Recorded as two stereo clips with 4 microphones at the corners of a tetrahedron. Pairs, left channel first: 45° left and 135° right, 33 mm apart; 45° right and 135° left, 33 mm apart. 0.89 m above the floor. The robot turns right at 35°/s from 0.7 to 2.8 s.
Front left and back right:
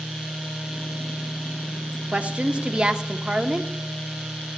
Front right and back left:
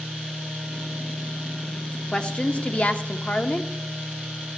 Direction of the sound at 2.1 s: 100° right.